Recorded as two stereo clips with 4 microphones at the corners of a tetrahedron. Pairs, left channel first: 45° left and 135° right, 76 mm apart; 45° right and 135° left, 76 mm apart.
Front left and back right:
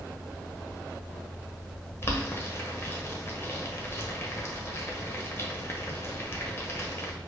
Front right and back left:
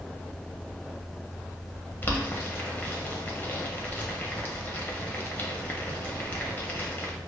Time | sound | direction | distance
2.0 | boiling | 10° left | 1.1 m